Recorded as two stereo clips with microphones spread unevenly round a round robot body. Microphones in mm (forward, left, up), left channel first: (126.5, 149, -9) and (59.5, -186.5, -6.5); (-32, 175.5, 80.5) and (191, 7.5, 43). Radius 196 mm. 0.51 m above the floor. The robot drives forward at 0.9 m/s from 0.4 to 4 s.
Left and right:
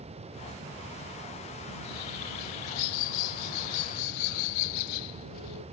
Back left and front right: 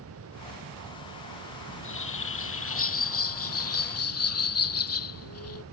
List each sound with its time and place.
1.7 s a bird: 95° left; by 5.6 s 105° left